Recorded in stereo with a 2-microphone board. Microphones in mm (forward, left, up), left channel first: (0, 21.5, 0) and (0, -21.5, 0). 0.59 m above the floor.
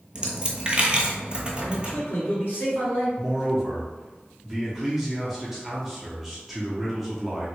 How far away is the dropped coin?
About 0.6 m.